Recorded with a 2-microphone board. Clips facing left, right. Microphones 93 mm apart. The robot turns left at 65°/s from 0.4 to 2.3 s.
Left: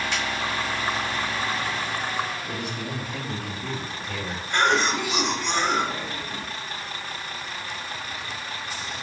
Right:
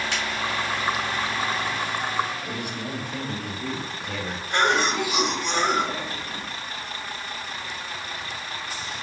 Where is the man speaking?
55° right (ahead or behind), 1.3 m.